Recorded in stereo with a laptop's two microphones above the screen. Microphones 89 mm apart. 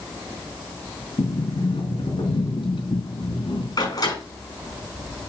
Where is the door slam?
45° left (ahead or behind), 6.5 m.